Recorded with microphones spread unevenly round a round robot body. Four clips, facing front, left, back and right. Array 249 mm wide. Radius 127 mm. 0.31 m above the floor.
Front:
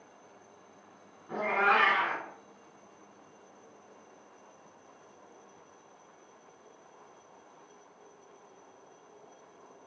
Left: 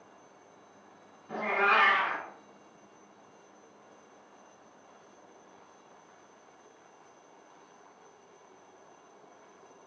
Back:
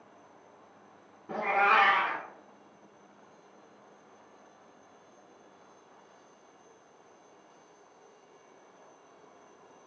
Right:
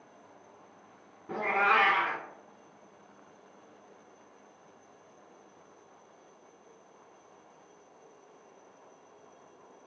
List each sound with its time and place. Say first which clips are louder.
1.3 s a cat meowing: even, back 2 dB; 130° right, 1.5 m